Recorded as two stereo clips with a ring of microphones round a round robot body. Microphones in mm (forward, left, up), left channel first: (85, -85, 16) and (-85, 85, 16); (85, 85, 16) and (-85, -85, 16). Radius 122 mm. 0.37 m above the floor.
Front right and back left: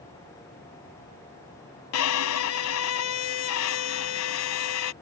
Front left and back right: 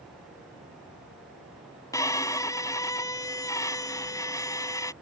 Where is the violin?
30° right.